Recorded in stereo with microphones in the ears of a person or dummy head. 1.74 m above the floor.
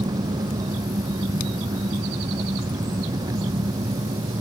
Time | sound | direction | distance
0.0 | an engine running | 20° right (ahead or behind) | ?